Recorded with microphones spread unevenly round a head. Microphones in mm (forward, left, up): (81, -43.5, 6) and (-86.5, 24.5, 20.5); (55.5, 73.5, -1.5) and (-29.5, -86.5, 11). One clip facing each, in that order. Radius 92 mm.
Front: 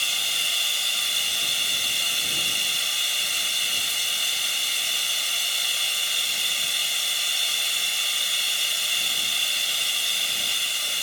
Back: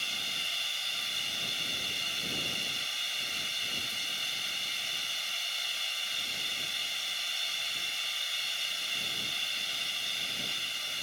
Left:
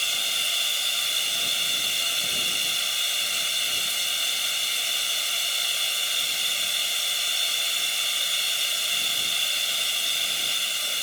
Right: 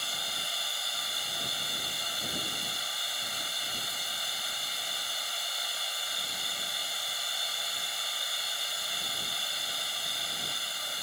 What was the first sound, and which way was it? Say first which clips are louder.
Running water: front 6 dB, left 2 dB; 5° left.